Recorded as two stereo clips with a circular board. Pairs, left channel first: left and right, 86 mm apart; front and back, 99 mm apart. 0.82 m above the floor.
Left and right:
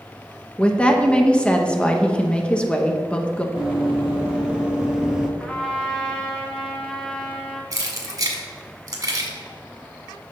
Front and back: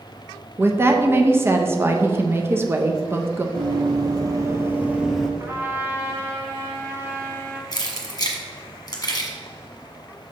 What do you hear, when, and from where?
0.6 s a woman speaking: 155° left, 0.6 m
3.5 s running footsteps: 165° right, 1.3 m; by 5.3 s 70° right, 0.8 m
5.4 s a trumpet: 165° left, 0.9 m
7.7 s keys jangling: 50° right, 1.3 m